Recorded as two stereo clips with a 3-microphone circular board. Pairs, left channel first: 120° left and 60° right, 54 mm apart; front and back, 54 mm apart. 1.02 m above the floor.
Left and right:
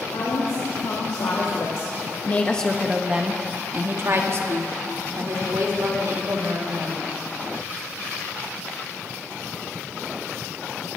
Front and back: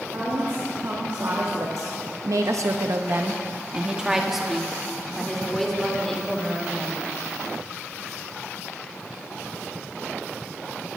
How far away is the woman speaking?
About 2.5 m.